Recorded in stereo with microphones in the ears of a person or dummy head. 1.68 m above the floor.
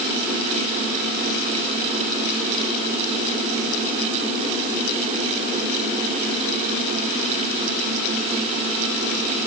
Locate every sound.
Only background noise.